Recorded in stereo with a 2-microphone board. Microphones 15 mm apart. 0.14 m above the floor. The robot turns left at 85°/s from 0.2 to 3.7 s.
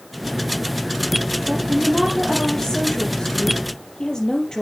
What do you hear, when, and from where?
1.5 s a woman speaking: 115° right, 4 m; by 4.6 s 55° left, 4 m